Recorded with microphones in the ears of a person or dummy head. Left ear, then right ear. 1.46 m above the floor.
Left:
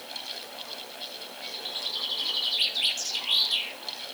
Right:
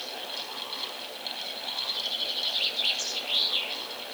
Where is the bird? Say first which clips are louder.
Left 1 dB; 75° left (ahead or behind), 7 m.